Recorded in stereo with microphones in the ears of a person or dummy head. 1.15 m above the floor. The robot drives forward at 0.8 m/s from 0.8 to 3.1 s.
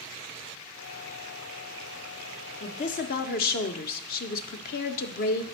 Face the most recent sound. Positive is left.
turn(degrees=45)  # may be behind; listen again after turning